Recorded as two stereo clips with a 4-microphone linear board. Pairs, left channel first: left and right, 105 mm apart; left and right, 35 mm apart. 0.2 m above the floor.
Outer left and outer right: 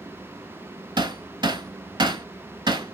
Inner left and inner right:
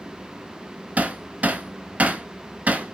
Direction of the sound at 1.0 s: 45° right (ahead or behind).